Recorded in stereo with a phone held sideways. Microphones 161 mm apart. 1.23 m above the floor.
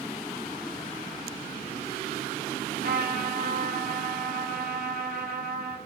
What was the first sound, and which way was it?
A trumpet, 70° right (ahead or behind).